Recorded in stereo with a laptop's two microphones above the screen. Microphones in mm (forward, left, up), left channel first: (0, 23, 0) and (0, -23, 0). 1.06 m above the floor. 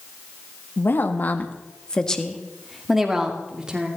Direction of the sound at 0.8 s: 50° left (ahead or behind).